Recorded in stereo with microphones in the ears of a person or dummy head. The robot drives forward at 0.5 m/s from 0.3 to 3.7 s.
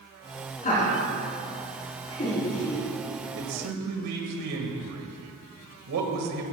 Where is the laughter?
35° left (ahead or behind), 4 m; by 2.8 s 30° left (ahead or behind), 4.5 m.